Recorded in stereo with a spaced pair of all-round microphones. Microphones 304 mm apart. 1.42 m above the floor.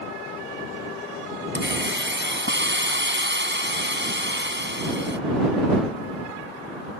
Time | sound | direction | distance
1.6 | a hiss | 35° right (ahead or behind) | ?